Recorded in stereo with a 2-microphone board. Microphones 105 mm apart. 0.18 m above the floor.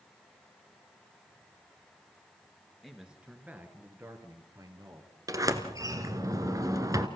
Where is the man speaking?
Centre (ahead or behind), 2.5 m; by 5.1 s 40° right (ahead or behind), 3.5 m.